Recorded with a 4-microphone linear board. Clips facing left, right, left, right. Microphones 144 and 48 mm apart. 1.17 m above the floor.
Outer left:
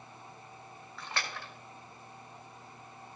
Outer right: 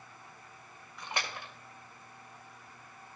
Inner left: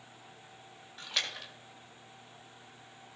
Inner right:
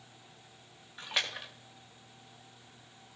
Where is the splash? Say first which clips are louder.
Outer right 1 dB, inner right 2 dB; 15° right (ahead or behind), 1.5 m.